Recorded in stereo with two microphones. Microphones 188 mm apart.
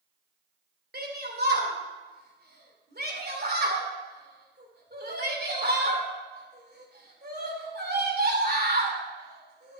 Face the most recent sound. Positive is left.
turn(degrees=-60)  # may be behind; listen again after turning